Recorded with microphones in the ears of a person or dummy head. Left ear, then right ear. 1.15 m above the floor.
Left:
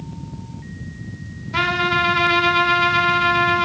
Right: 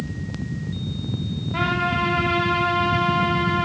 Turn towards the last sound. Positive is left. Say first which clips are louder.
# left 4 dB
turn(degrees=55)  # may be behind; listen again after turning